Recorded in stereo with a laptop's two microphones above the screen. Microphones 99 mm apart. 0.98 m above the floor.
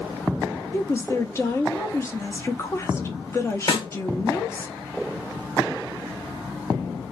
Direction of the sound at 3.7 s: 60° left (ahead or behind).